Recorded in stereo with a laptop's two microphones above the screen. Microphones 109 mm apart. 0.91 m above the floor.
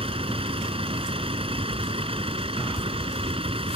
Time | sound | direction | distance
0.0 | a vehicle | 55° right (ahead or behind) | ?